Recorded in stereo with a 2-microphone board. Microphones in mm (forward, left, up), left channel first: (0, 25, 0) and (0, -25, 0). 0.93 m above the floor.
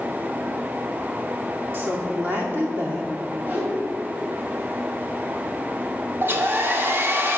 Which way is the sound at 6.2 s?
50° right (ahead or behind).